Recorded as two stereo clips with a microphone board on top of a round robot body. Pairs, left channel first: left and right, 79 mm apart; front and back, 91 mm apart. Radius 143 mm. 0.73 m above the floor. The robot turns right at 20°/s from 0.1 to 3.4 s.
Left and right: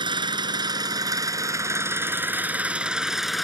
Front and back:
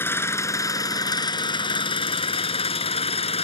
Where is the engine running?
65° right; by 3.4 s straight ahead.